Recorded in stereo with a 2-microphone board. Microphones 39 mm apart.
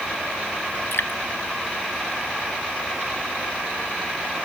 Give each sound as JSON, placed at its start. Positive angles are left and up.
{"t": 0.9, "sound": "dripping", "side_deg": 75}